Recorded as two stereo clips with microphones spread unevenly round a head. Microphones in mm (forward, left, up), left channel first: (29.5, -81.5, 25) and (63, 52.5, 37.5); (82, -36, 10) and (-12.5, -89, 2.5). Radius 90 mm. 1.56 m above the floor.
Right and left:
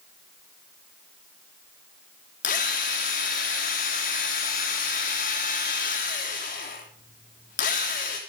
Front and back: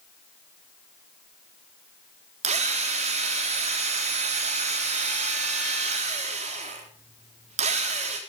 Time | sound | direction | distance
2.4 | a drill | 145° right | 3.5 m